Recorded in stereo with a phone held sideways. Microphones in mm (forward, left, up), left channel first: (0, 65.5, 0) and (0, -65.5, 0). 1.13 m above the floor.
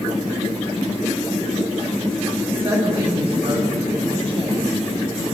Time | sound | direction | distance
2.5 | a woman speaking | 45° right (ahead or behind) | 6.5 m